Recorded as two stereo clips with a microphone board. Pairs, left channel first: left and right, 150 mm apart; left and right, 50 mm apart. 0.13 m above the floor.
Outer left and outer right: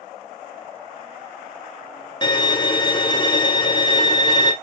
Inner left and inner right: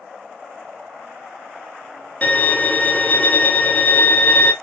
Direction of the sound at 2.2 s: 30° left (ahead or behind).